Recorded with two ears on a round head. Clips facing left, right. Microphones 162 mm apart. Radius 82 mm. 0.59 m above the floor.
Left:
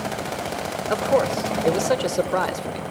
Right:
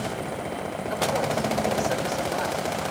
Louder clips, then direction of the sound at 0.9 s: Left 6 dB; 70° left (ahead or behind).